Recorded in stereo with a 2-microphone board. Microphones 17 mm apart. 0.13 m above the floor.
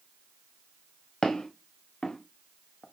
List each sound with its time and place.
1.2 s footsteps: 55° left (ahead or behind), 2 m; by 2.8 s 60° left (ahead or behind), 1.3 m